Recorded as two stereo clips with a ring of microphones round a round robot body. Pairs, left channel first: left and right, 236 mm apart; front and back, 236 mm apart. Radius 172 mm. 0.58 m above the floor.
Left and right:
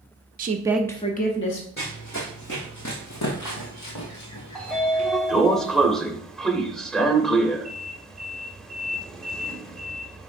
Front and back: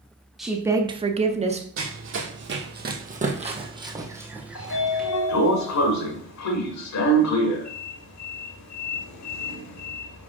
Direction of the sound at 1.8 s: 155° left.